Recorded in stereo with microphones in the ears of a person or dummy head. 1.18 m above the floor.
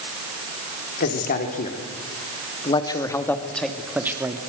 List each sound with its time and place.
1.0 s a man speaking: 50° left (ahead or behind), 3.5 m; by 4.4 s 20° right (ahead or behind), 2.5 m